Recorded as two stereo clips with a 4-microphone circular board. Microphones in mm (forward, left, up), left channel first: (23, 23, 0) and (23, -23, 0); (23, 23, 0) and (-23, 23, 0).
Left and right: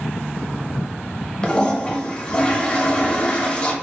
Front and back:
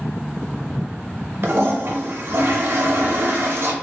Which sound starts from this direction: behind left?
A toilet flushing, at 1.4 s.